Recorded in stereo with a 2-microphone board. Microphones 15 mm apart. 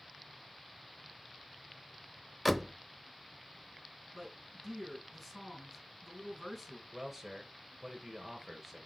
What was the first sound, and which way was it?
A door slam, 5° left (ahead or behind).